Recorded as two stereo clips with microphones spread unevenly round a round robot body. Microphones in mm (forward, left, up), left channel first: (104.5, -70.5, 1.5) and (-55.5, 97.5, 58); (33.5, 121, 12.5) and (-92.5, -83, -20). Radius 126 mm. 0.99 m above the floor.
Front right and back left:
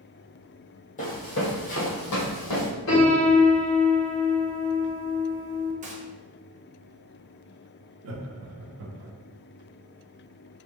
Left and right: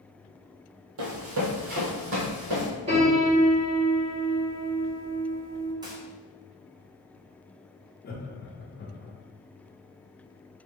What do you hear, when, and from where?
1.0 s running footsteps: 110° right, 1.4 m; by 2.7 s 70° right, 2 m
2.9 s a piano: 55° right, 2.0 m
5.8 s a gunshot: 170° right, 0.9 m
8.0 s laughter: 110° left, 0.7 m